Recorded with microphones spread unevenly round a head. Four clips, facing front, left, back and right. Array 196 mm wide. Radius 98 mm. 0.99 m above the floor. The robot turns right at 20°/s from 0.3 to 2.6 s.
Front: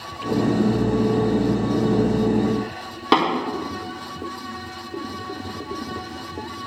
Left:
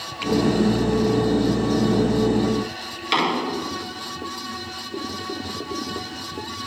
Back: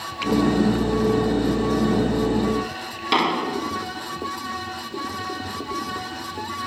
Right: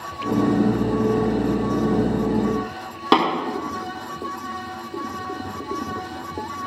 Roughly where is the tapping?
Ahead right.